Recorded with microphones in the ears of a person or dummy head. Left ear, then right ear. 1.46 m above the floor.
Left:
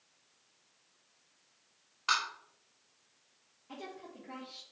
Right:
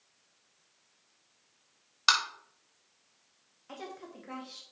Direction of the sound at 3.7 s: 60° right (ahead or behind).